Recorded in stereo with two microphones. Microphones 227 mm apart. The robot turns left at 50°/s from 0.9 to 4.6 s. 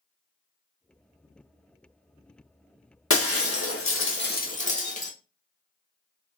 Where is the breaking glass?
110° left, 0.7 m; by 5.1 s 35° left, 0.7 m.